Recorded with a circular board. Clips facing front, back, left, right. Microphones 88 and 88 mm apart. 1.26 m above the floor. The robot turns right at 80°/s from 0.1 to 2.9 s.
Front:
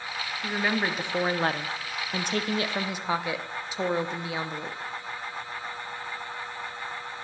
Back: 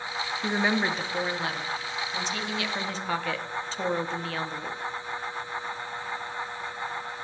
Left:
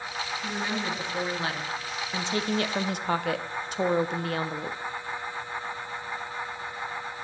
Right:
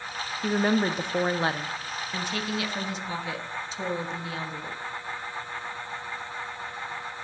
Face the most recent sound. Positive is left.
turn(degrees=75)